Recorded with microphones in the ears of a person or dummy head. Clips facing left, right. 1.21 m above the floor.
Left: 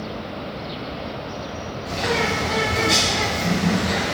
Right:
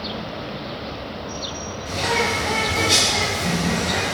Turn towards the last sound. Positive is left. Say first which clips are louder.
# even
turn(degrees=5)  # may be behind; listen again after turning